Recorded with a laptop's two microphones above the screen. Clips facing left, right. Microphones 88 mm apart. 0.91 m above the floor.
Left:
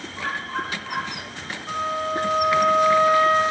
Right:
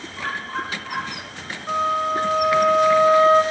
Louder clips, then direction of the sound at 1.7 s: Right 4 dB; 25° right (ahead or behind).